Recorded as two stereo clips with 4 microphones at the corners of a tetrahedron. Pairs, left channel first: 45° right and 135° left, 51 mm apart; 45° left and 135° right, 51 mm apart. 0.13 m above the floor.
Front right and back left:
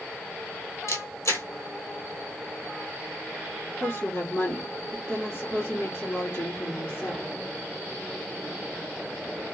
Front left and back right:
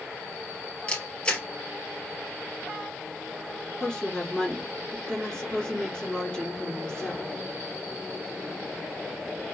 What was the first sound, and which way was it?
A camera shutter, 20° right.